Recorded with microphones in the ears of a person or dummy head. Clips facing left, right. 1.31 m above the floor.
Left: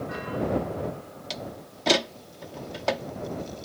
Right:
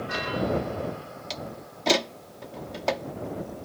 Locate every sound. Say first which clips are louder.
1.3 s a door slam: left 1 dB; centre (ahead or behind)